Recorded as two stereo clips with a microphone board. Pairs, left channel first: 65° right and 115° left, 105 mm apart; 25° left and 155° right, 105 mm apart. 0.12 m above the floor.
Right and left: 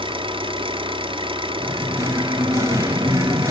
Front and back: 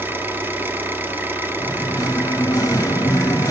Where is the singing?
65° left, 1.1 m.